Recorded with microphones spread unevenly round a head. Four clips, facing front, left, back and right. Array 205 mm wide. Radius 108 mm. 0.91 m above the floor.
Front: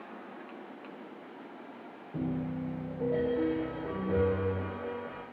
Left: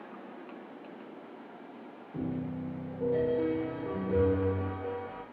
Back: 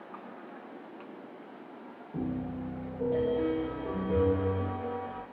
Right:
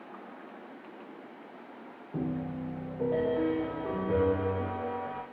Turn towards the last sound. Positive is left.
turn(degrees=-80)